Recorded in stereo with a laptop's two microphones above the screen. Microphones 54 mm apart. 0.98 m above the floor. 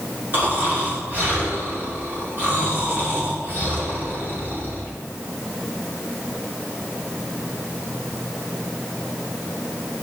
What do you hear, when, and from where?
0.3 s snoring: 40° right (ahead or behind), 2.5 m